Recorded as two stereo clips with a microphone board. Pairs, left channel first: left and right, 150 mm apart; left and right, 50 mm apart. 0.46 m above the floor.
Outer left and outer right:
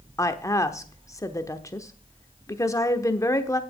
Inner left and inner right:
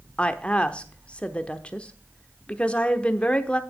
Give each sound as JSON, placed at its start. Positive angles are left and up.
{"t": 0.2, "sound": "a woman speaking", "side_deg": 20, "distance_m": 0.9}